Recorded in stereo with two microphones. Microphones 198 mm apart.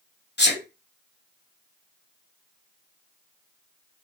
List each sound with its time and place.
0.4 s a sneeze: 60° left (ahead or behind), 0.9 m